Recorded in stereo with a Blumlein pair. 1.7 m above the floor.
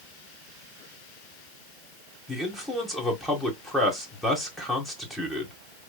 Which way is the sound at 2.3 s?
5° left.